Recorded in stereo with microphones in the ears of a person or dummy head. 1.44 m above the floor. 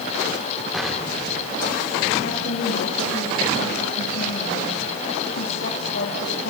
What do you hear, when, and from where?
0.7 s an explosion: 5° left (ahead or behind), 2.5 m
2.2 s a woman speaking: 60° left (ahead or behind), 3 m